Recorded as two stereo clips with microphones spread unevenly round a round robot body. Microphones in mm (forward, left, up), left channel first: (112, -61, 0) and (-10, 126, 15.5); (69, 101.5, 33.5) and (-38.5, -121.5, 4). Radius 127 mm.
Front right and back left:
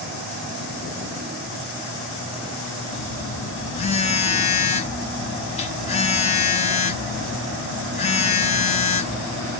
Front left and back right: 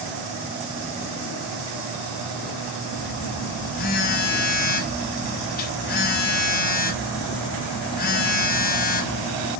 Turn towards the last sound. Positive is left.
turn(degrees=5)